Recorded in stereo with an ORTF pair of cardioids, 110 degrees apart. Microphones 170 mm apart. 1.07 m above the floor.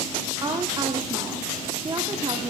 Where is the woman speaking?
25° right, 1.9 m.